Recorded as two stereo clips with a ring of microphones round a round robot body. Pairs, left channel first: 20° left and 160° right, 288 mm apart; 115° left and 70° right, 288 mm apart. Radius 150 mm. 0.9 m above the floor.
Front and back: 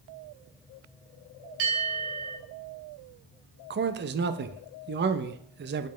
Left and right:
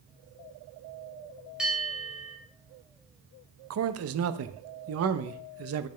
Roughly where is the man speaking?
Right.